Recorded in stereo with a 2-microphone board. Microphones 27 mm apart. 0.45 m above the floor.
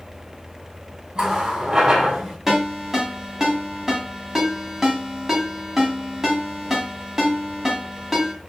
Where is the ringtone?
15° right (ahead or behind), 1.4 m.